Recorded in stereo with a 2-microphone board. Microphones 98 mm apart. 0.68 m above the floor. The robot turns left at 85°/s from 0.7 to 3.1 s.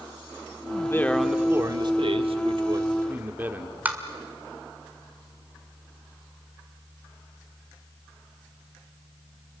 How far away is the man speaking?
About 1.4 m.